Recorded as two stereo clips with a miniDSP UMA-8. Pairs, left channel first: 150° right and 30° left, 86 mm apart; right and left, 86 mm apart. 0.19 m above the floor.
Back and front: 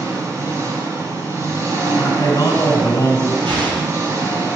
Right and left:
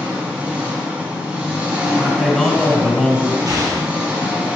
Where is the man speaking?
175° right, 1.6 m.